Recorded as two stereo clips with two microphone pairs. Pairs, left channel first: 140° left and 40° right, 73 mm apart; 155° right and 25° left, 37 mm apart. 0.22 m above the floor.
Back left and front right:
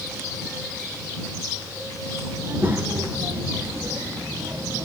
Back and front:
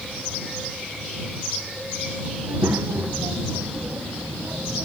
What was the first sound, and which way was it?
A child speaking, 25° left.